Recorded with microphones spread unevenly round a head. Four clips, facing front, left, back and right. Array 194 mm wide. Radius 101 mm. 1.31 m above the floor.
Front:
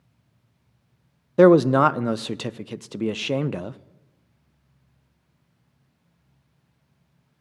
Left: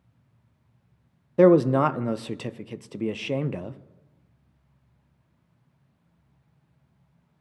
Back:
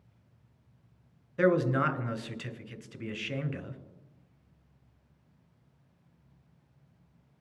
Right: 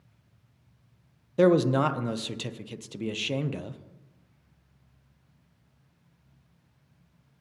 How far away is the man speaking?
About 0.5 m.